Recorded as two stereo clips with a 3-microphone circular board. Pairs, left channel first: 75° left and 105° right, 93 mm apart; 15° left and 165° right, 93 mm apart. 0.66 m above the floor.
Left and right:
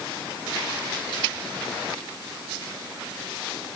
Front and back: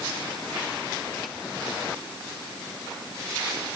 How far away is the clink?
I don't hear a clink.